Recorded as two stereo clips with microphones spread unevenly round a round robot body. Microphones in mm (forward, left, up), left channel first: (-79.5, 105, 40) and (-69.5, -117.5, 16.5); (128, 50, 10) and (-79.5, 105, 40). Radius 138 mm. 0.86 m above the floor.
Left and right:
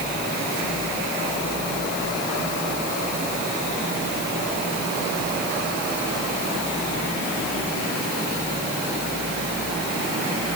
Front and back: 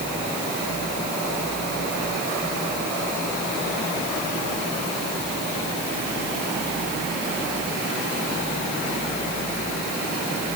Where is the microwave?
I don't hear a microwave.